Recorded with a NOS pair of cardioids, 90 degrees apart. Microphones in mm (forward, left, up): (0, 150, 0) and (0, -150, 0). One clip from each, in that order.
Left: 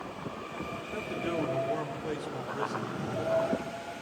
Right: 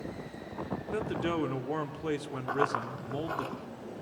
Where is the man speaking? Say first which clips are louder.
Right 1 dB; 40° right, 3.5 m.